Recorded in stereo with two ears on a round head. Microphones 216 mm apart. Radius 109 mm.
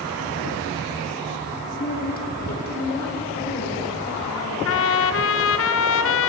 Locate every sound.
1.8 s a woman speaking: 30° left (ahead or behind), 1.0 m; by 4.5 s 45° left (ahead or behind), 4 m
4.7 s a trumpet: 55° left (ahead or behind), 0.7 m